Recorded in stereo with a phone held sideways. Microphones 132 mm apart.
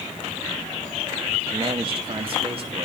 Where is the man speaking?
40° right (ahead or behind), 1.5 m; by 2.9 s 45° right (ahead or behind), 3 m.